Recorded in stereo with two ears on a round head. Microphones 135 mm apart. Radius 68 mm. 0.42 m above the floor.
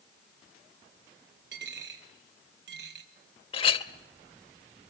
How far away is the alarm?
I don't hear an alarm.